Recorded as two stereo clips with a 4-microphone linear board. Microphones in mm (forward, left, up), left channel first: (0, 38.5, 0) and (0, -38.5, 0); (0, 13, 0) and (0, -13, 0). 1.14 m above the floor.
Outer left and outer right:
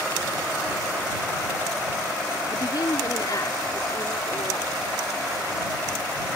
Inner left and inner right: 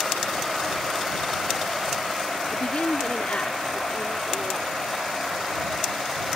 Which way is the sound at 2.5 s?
65° left (ahead or behind).